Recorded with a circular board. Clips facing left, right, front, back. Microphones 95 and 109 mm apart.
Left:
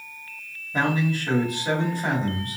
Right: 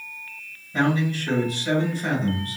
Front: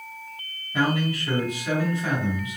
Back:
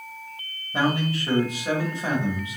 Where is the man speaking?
155° left, 1.9 m.